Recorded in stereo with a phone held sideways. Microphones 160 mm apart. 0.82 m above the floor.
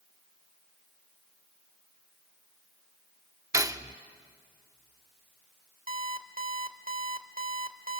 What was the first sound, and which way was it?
Cutlery clinking, 20° right (ahead or behind).